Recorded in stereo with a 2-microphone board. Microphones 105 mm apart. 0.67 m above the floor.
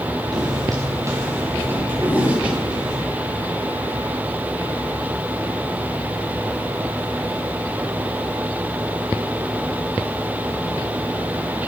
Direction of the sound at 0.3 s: 40° right (ahead or behind).